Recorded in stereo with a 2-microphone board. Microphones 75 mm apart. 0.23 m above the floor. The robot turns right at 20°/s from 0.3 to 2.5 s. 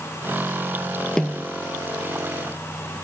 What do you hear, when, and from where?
1.2 s a snare drum: 10° left (ahead or behind); by 1.5 s 15° left (ahead or behind)